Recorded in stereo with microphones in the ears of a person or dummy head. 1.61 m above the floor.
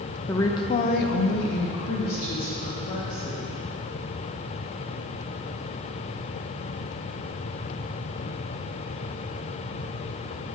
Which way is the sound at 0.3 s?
15° left (ahead or behind).